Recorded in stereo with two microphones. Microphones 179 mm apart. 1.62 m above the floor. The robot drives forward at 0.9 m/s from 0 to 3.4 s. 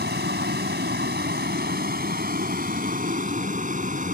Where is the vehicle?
70° right (ahead or behind); by 4.1 s 45° right (ahead or behind).